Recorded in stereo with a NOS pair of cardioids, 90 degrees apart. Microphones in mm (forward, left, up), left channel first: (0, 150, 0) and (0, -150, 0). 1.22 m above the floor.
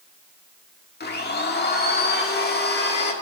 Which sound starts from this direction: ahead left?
A blender, at 1.0 s.